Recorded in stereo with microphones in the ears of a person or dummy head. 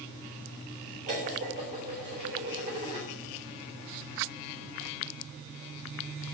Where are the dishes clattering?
40° right (ahead or behind), 3.5 m.